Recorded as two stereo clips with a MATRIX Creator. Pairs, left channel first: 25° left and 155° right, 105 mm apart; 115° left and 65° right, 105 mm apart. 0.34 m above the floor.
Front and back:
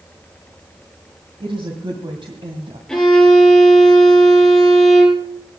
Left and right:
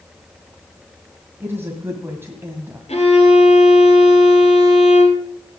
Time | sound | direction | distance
1.4 | a woman speaking | 135° right | 2 m
2.9 | a violin | 105° left | 5 m